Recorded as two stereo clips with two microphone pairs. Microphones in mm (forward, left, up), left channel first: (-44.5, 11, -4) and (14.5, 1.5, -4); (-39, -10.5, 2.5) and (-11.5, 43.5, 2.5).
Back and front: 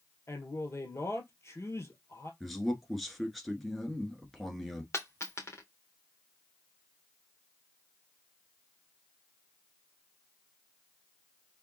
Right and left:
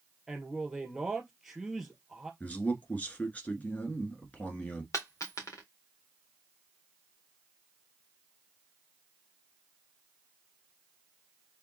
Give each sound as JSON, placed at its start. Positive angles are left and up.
{"t": 0.3, "sound": "a man speaking", "azimuth_deg": 145, "distance_m": 2.0}
{"t": 2.4, "sound": "a man speaking", "azimuth_deg": -105, "distance_m": 1.2}
{"t": 4.9, "sound": "a dropped coin", "azimuth_deg": -150, "distance_m": 1.8}